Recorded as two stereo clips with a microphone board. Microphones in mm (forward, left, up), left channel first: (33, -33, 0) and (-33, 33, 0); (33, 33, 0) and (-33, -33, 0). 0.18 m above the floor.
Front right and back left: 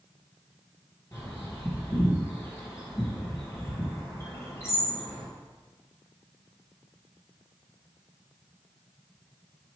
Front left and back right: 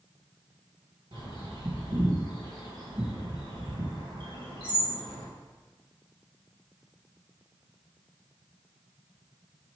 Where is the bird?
105° right, 2.5 m.